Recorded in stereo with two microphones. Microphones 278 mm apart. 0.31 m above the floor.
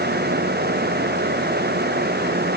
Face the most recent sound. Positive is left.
No sound to turn to.